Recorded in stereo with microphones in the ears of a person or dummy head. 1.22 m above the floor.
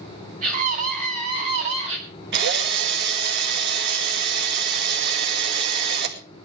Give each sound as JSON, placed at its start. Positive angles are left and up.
{"t": 0.4, "sound": "a scream", "side_deg": -35, "distance_m": 9.0}
{"t": 2.3, "sound": "a drill", "side_deg": -55, "distance_m": 2.5}